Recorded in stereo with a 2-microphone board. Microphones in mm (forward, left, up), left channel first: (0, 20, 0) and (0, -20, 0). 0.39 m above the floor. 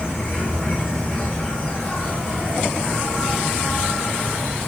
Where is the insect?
30° left (ahead or behind), 5.5 m.